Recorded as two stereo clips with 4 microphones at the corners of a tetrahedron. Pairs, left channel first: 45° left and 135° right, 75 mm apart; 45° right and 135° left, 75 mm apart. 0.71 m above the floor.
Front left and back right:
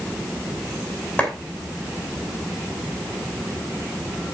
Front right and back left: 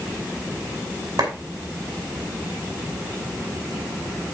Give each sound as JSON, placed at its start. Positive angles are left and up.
{"t": 1.2, "sound": "a clap", "azimuth_deg": 120, "distance_m": 5.5}